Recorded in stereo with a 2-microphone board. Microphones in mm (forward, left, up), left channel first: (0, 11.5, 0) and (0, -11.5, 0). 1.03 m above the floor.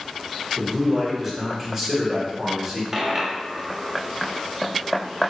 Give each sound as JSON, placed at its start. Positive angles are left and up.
{"t": 0.6, "sound": "a man speaking", "side_deg": -10, "distance_m": 1.5}
{"t": 2.9, "sound": "a dropped coin", "side_deg": -20, "distance_m": 0.7}